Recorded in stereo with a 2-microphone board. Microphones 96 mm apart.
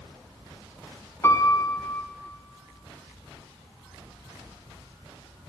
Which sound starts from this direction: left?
A piano, at 1.2 s.